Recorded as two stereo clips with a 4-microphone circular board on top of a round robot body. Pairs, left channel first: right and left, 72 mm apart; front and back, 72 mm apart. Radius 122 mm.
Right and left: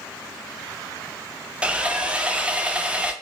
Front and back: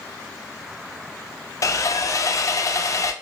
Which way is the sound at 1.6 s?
20° left.